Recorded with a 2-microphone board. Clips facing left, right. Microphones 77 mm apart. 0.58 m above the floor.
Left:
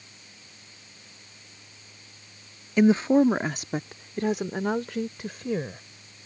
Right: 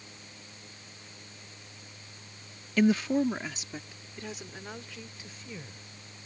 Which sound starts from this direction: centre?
A woman speaking, at 2.8 s.